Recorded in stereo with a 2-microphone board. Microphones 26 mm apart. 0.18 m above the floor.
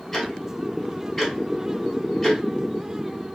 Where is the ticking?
5° left (ahead or behind), 1.2 m.